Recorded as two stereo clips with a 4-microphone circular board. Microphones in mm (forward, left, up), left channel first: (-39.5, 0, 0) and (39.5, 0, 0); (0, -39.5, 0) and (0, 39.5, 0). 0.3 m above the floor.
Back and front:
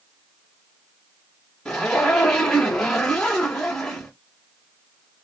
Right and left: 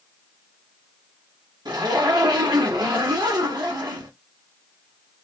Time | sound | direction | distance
1.6 | a zipper | 95° left | 1.8 m